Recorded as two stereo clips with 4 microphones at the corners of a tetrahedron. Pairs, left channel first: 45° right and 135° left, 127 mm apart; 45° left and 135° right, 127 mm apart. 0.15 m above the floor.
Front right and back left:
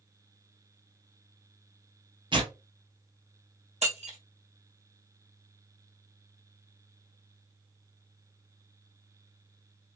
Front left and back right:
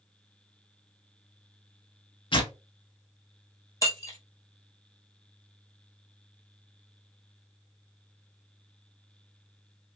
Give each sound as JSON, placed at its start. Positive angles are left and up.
{"t": 2.3, "sound": "tearing paper", "azimuth_deg": 90, "distance_m": 0.7}
{"t": 3.8, "sound": "breaking glass", "azimuth_deg": 110, "distance_m": 2.0}